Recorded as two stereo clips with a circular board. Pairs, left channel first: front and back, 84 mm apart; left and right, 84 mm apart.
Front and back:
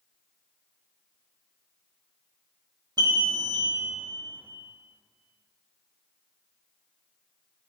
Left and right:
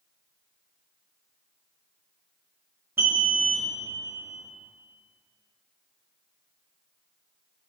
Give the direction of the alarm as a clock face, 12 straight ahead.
5 o'clock.